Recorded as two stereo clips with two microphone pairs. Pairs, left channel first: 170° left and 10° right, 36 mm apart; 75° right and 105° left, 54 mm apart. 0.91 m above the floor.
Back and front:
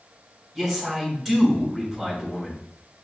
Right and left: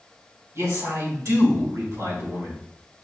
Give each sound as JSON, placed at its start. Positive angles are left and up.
{"t": 0.6, "sound": "a man speaking", "azimuth_deg": 85, "distance_m": 2.5}